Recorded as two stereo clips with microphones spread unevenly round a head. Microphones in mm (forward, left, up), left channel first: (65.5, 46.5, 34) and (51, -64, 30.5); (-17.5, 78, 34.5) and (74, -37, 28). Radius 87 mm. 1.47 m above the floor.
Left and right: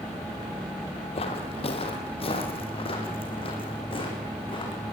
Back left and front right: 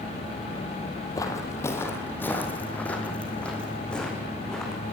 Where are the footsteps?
65° left, 2.5 m; by 4.8 s 45° left, 6.5 m.